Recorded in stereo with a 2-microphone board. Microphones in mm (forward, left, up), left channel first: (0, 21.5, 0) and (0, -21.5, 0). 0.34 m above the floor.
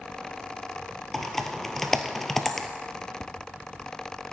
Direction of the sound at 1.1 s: 5° left (ahead or behind).